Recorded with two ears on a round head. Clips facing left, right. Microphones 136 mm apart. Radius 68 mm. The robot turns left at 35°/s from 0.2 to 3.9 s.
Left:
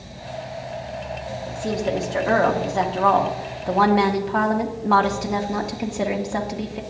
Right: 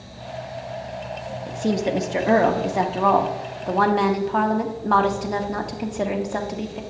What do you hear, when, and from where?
1.5 s a woman speaking: 25° right (ahead or behind), 0.7 m; by 6.8 s 5° left (ahead or behind), 0.7 m